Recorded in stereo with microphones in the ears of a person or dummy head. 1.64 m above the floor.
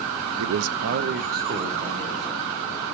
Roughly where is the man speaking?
Right.